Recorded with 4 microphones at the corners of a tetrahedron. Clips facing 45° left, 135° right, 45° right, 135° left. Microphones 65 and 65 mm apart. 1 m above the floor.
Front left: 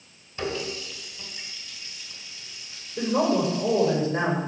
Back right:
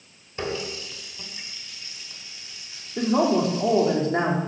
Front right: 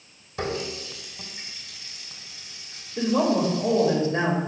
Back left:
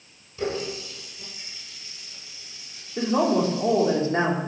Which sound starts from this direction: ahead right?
A running tap, at 0.4 s.